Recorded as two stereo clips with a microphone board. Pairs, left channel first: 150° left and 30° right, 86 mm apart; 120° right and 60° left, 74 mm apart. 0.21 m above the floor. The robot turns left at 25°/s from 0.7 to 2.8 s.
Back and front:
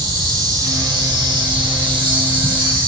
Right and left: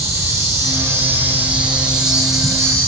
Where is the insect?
10° left, 5.5 m; by 2.9 s 40° right, 5.5 m.